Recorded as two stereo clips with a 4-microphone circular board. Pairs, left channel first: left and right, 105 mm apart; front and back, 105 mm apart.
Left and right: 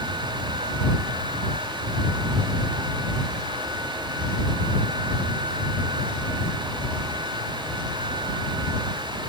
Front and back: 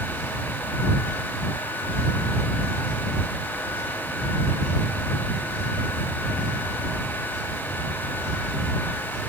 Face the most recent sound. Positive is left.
No sound to turn to.